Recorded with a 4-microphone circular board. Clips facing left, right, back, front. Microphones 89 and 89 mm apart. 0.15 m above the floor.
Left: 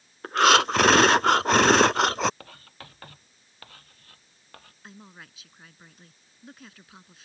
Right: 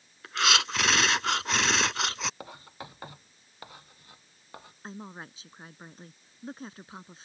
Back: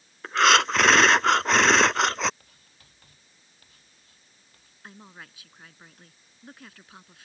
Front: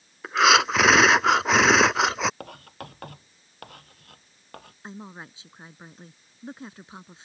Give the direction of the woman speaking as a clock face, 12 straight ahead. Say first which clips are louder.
Right 6 dB, front 5 dB; 2 o'clock.